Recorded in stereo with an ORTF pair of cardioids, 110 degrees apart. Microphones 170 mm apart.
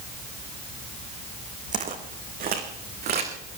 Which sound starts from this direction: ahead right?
Footsteps, at 1.7 s.